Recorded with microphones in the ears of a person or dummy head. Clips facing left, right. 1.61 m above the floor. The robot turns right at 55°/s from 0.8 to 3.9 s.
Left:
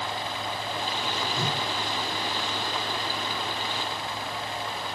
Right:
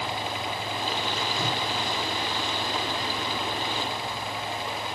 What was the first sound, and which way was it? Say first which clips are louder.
A whoosh: right 1 dB; 65° left (ahead or behind).